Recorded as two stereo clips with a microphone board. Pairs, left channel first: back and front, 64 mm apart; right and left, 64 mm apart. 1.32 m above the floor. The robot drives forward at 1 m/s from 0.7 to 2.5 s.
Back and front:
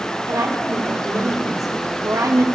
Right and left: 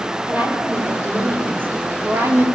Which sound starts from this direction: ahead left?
A woman speaking, at 0.3 s.